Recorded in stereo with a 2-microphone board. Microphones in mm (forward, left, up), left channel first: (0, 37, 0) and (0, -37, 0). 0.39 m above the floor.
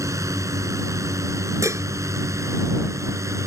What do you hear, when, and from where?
0.0 s a drone: 45° right (ahead or behind); by 3.5 s 40° right (ahead or behind)
1.6 s dishes clattering: 45° right (ahead or behind)